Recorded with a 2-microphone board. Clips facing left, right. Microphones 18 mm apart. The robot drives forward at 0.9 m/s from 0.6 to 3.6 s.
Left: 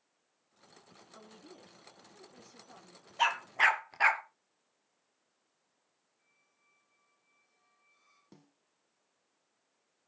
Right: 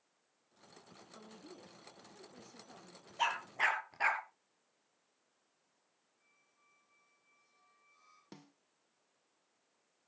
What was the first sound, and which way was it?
A woman speaking, 15° left (ahead or behind).